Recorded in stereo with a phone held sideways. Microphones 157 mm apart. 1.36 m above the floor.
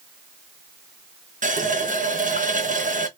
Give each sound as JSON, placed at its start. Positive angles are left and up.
{"t": 1.4, "sound": "a running tap", "side_deg": -55, "distance_m": 0.7}